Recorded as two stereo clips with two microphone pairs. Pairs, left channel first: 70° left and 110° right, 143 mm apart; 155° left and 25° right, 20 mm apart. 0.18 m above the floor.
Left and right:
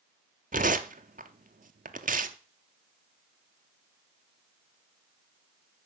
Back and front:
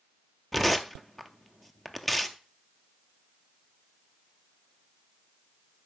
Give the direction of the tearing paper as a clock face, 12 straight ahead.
4 o'clock.